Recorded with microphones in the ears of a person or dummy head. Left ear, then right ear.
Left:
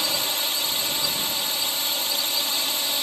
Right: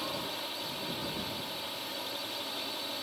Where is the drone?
70° left (ahead or behind).